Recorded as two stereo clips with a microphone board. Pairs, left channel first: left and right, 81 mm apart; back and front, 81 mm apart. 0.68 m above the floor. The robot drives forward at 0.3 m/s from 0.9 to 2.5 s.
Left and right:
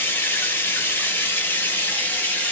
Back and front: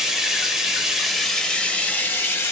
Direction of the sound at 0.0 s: 80° left.